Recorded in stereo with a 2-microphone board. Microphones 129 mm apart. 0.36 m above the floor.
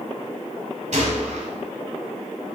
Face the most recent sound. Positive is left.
turn(degrees=-65)  # may be behind; listen again after turning